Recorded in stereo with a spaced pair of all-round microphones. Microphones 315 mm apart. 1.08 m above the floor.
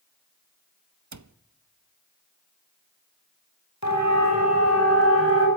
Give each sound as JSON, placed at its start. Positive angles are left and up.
{"t": 1.1, "sound": "a cupboard door", "side_deg": -60, "distance_m": 0.7}
{"t": 3.8, "sound": "a siren", "side_deg": 60, "distance_m": 6.0}